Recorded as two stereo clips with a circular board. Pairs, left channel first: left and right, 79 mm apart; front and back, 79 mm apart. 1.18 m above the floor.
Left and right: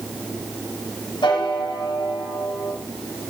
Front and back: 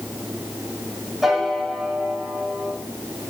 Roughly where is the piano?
Left.